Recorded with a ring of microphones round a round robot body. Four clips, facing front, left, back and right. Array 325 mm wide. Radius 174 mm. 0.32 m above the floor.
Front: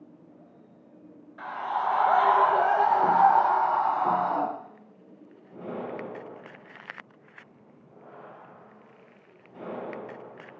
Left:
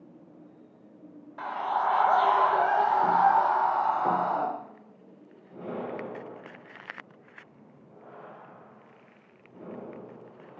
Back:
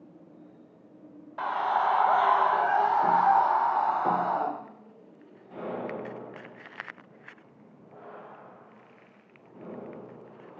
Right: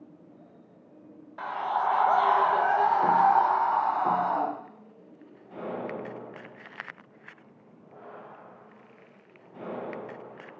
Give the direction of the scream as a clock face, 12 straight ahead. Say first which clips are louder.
Even, back 3 dB; 6 o'clock.